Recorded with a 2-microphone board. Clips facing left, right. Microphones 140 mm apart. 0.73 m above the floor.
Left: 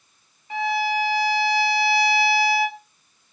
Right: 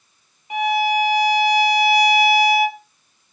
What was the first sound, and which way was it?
A violin, 15° right (ahead or behind).